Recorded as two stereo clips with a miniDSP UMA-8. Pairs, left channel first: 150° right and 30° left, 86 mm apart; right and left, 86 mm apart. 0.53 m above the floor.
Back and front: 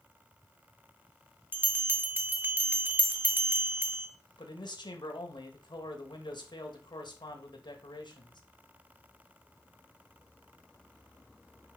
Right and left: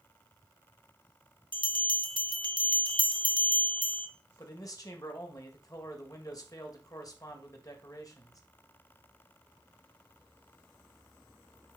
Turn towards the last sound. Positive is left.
turn(degrees=-130)